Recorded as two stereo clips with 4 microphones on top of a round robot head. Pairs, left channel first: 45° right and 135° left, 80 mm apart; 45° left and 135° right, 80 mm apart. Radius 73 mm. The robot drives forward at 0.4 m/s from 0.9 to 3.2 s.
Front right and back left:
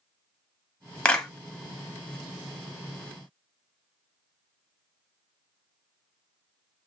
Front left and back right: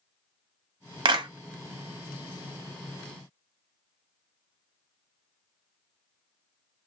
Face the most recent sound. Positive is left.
turn(degrees=-150)